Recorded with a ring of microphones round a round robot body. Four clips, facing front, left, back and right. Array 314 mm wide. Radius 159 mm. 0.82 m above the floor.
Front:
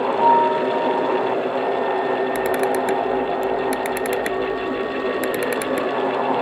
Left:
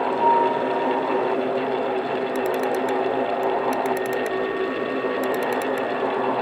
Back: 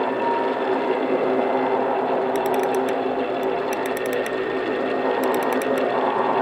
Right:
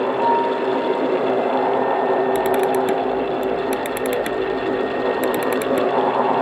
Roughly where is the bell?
Ahead.